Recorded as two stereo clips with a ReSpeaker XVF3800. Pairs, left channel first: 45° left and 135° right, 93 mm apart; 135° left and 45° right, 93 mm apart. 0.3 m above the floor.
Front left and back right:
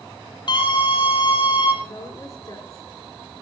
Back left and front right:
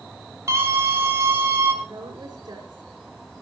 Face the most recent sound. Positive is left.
turn(degrees=0)